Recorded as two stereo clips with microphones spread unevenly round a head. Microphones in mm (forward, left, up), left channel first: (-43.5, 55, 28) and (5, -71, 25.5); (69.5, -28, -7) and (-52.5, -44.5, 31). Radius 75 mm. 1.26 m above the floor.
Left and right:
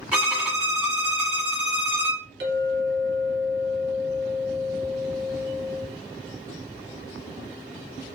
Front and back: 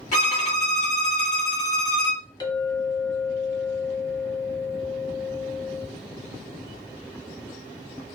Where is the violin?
10° left, 1.9 m.